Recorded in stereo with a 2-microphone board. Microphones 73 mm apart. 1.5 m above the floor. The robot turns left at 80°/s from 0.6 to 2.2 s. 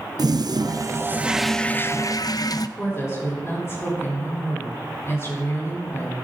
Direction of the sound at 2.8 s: 35° left (ahead or behind).